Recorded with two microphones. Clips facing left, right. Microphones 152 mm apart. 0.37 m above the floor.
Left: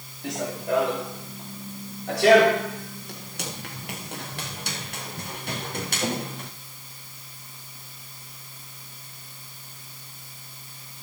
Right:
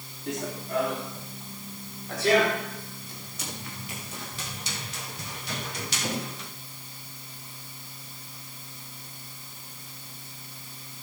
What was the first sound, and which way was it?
Running footsteps, 85° left.